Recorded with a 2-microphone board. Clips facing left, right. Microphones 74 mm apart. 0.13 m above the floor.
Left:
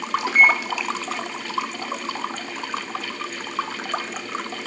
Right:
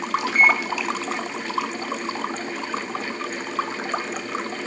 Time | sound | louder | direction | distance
0.3 | a microwave | left 2 dB | 25° left (ahead or behind) | 4 m